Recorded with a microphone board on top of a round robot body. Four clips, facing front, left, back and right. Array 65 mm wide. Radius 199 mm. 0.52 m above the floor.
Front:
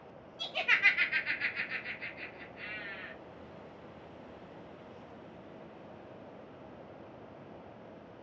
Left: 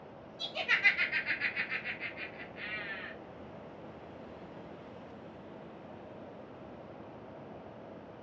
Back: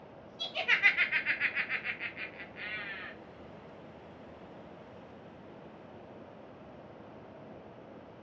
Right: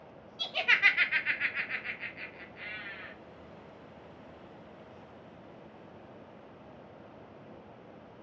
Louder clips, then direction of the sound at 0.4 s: Right 3 dB, even; 75° right.